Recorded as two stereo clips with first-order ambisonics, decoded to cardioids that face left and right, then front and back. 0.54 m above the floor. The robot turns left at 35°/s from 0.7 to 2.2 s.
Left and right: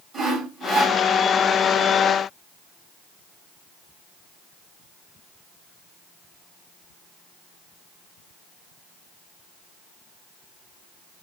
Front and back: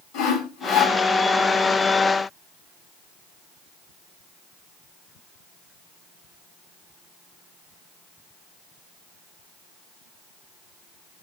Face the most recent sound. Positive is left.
turn(degrees=-75)